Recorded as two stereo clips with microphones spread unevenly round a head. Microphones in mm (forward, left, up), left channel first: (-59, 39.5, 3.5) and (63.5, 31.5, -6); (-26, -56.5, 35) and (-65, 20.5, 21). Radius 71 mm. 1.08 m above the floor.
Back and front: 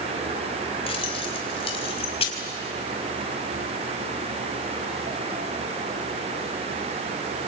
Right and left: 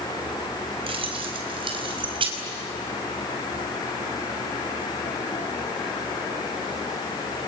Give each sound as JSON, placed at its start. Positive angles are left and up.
{"t": 0.9, "sound": "keys jangling", "azimuth_deg": 135, "distance_m": 4.0}